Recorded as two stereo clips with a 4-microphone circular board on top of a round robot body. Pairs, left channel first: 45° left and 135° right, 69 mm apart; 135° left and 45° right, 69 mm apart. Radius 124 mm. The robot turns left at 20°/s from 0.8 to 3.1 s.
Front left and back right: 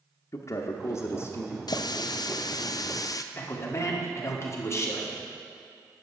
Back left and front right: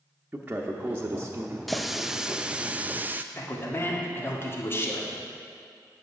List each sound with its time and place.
0.3 s a man speaking: 20° left, 0.9 m; by 1.6 s 5° left, 0.9 m
1.7 s a running tap: 45° left, 0.5 m; by 3.2 s 20° left, 0.5 m
3.3 s a man speaking: 85° left, 2.0 m